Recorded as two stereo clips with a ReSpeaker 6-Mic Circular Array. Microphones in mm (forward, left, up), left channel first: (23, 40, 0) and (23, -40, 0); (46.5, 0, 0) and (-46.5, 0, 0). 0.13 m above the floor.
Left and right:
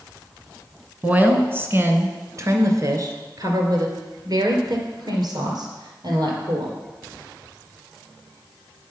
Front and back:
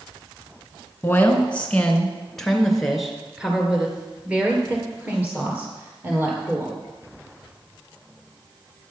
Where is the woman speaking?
45° right, 1.4 m; by 6.8 s 115° right, 3.5 m.